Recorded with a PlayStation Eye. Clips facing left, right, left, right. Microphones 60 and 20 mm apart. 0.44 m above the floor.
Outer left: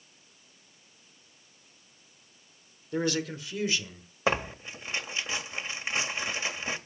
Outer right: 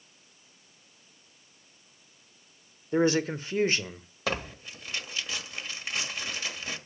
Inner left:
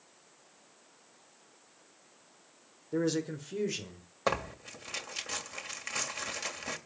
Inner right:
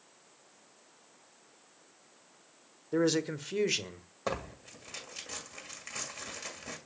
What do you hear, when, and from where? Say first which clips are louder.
2.9 s a man speaking: outer right 5 dB, inner right 3 dB; 25° right (ahead or behind), 1.2 m; by 4.1 s 50° right (ahead or behind), 1.5 m
4.3 s tearing paper: outer left 4 dB, inner left 4 dB; 25° left (ahead or behind), 1.9 m